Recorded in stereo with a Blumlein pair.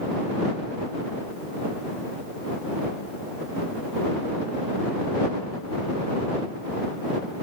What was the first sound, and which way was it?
Only background noise.